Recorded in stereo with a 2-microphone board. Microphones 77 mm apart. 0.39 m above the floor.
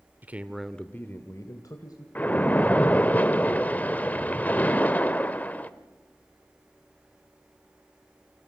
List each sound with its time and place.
0.2 s a man speaking: 25° right (ahead or behind), 1.1 m; by 2.0 s 60° left (ahead or behind), 2 m
2.1 s a splash: 20° left (ahead or behind), 1.0 m